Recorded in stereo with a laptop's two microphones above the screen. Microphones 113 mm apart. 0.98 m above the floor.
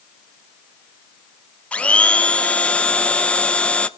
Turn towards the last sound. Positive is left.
turn(degrees=10)  # may be behind; listen again after turning